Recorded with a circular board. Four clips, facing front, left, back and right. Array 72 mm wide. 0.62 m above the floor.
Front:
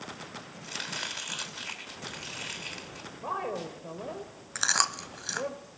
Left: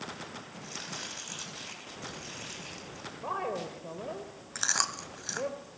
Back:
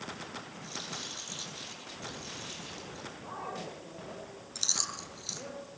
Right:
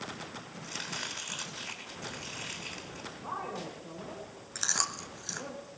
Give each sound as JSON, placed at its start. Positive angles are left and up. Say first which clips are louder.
{"t": 0.6, "sound": "chopping", "louder": "right 4 dB, front 4 dB", "azimuth_deg": -15, "distance_m": 5.0}
{"t": 3.1, "sound": "a woman speaking", "louder": "left 5 dB, front 9 dB", "azimuth_deg": 45, "distance_m": 2.5}
{"t": 4.5, "sound": "chewing", "louder": "left 3 dB, front 13 dB", "azimuth_deg": 10, "distance_m": 1.1}